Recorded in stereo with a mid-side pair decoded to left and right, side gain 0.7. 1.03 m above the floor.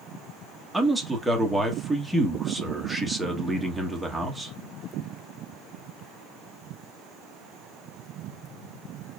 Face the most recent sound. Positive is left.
turn(degrees=0)